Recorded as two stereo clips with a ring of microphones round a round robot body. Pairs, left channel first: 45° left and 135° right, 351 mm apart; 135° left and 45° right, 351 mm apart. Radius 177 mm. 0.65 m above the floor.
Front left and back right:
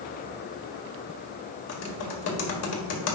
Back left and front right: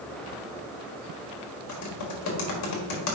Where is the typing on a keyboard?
95° left, 1.7 m.